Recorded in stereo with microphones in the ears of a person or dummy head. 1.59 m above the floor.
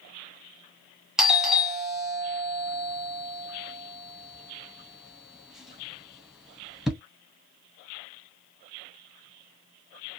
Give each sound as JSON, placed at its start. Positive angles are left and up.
{"t": 1.2, "sound": "a doorbell", "side_deg": -5, "distance_m": 0.5}